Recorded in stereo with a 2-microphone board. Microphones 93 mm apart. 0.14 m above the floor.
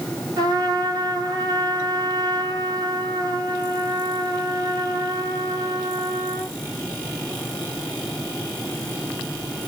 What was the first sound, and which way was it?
A trumpet, 40° right (ahead or behind).